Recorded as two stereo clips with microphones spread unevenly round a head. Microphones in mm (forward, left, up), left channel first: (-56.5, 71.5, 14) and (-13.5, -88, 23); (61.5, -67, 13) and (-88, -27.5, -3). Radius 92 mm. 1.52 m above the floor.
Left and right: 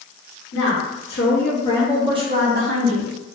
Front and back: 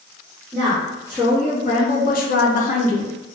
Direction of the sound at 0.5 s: 80° left.